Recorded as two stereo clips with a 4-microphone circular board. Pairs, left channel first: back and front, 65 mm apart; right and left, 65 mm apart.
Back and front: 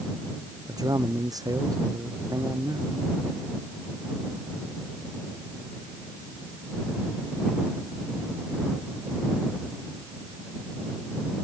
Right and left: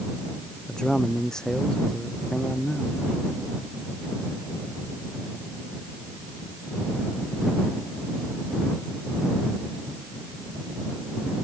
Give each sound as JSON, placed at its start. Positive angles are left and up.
{"t": 0.7, "sound": "a man speaking", "azimuth_deg": -10}